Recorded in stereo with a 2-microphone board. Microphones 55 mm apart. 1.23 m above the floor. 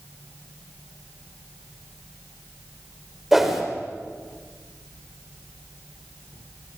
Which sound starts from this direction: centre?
A whoosh, at 3.3 s.